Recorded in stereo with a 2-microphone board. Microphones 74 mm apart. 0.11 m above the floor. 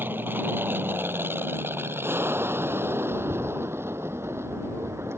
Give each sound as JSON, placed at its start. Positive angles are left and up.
{"t": 0.0, "sound": "an aircraft", "side_deg": -30}
{"t": 3.1, "sound": "a bird", "side_deg": -55}